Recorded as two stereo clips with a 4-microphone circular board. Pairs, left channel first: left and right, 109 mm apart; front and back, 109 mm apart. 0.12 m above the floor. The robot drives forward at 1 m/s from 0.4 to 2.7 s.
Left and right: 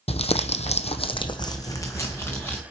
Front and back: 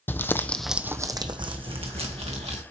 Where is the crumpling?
70° left, 0.7 m; by 2.6 s 160° left, 2 m.